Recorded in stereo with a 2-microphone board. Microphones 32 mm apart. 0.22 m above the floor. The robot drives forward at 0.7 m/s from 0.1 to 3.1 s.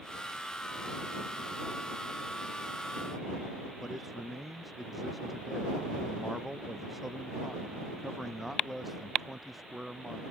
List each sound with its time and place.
3.8 s a man speaking: centre (ahead or behind)